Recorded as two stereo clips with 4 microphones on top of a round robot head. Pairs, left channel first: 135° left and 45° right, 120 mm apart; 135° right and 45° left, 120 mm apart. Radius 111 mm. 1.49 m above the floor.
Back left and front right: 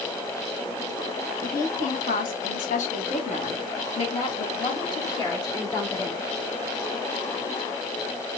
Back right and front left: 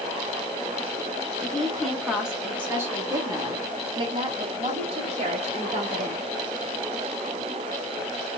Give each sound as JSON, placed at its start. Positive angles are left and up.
{"t": 1.4, "sound": "a woman speaking", "azimuth_deg": 140, "distance_m": 1.9}